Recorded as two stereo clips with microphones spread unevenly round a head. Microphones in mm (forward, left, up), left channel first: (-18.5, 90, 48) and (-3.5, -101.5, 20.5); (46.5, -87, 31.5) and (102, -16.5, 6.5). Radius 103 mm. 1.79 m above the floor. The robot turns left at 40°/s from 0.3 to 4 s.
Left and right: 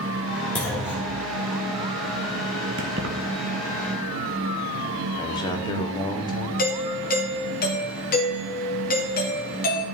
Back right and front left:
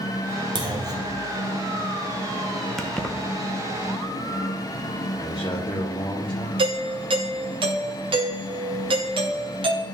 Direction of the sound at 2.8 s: 55° right.